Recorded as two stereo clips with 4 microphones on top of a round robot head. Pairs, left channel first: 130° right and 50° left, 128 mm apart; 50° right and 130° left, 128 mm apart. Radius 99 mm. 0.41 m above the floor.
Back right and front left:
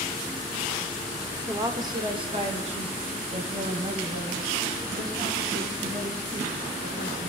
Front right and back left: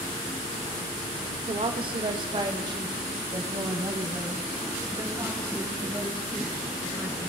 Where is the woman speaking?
110° left, 1.6 m; by 7.3 s 55° left, 6.5 m.